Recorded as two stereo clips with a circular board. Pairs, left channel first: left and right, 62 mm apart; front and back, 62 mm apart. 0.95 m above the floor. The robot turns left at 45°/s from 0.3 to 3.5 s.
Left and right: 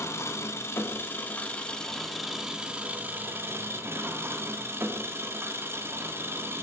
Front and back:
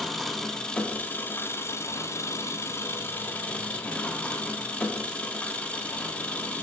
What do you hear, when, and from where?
0.0 s an engine running: 80° left, 0.8 m; by 6.6 s 60° right, 0.8 m